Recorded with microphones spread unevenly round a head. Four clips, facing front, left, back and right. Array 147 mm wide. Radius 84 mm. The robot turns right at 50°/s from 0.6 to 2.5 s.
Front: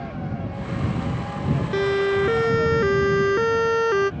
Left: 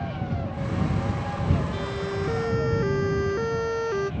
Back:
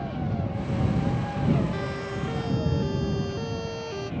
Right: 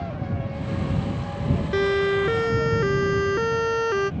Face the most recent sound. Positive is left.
turn(degrees=0)